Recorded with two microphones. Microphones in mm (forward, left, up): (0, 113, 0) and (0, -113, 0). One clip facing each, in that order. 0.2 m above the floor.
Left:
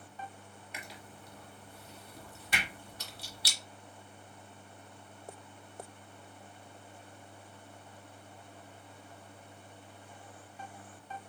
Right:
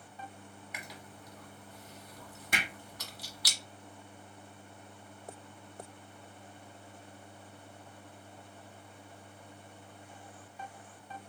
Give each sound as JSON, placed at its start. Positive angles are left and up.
{"t": 0.7, "sound": "chewing", "side_deg": 30, "distance_m": 1.2}
{"t": 2.5, "sound": "hammering", "side_deg": -50, "distance_m": 2.0}